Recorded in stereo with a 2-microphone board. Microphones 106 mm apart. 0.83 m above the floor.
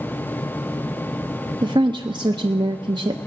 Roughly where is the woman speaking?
Right.